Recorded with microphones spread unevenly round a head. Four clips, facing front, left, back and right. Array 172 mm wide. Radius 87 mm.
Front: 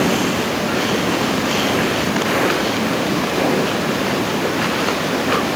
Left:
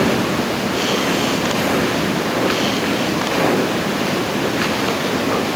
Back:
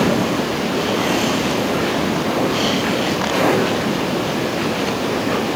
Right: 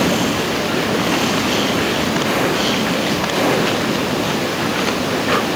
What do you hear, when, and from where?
Only background noise.